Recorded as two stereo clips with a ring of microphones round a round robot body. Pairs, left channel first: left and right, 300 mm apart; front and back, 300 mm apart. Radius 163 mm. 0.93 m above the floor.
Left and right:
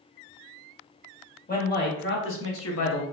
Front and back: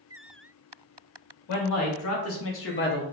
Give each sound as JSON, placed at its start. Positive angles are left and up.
{"t": 1.5, "sound": "a man speaking", "azimuth_deg": 30, "distance_m": 1.5}